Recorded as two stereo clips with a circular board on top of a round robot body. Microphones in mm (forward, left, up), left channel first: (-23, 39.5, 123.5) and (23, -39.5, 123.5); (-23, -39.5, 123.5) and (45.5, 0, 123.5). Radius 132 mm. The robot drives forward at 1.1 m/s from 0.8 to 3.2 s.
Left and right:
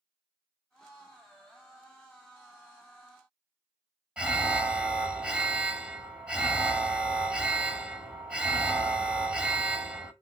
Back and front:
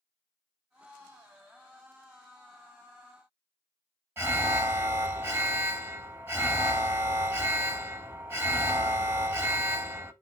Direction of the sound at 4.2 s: 10° left.